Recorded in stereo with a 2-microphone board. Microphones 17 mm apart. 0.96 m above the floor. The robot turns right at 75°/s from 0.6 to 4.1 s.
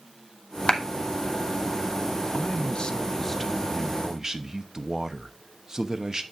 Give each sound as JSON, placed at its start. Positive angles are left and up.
{"t": 0.7, "sound": "a clap", "side_deg": 65, "distance_m": 1.3}
{"t": 2.3, "sound": "a man speaking", "azimuth_deg": 80, "distance_m": 0.8}